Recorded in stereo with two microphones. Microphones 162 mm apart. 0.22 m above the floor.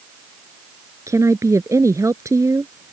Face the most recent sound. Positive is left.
turn(degrees=-20)  # may be behind; listen again after turning